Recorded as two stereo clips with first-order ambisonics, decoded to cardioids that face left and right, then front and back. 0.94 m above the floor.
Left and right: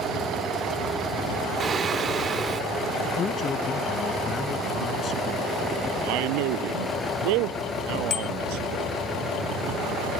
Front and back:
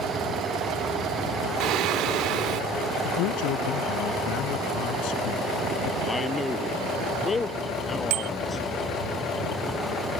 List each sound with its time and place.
1.6 s singing: 155° right
3.0 s a man speaking: 25° left
6.0 s a man speaking: 75° right
8.1 s a bicycle bell: 150° left